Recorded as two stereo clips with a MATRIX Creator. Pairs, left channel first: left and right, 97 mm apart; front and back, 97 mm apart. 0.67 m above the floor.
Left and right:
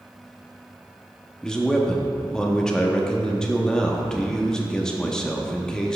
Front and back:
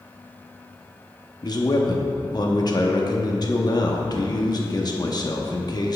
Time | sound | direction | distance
1.4 | a man speaking | 10° left | 0.9 m